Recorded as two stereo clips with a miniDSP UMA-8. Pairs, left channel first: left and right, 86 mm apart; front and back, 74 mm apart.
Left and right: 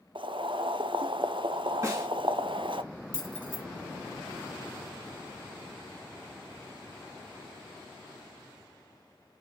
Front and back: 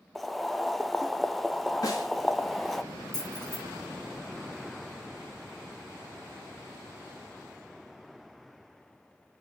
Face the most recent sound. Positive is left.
turn(degrees=-75)